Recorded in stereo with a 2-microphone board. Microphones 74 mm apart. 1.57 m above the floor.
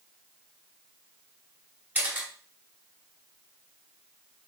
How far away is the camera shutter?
About 1.1 m.